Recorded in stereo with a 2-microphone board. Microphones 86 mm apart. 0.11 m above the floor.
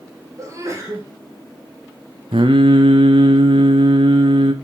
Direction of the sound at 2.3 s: 85° right.